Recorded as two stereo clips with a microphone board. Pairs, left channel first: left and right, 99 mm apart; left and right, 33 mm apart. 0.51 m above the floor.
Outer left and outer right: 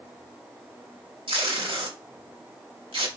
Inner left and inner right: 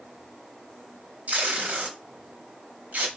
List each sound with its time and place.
1.3 s tape being pulled: 70° right (ahead or behind), 1.0 m